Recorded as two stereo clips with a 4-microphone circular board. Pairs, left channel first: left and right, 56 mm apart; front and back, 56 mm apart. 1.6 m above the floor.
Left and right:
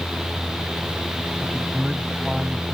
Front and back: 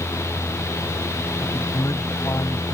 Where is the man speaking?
10° right.